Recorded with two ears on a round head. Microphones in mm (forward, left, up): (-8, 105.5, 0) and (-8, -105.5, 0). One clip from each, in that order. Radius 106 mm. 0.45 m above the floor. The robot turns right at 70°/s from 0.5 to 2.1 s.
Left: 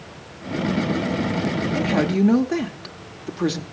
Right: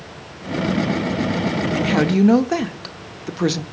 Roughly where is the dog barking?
I don't hear a dog barking.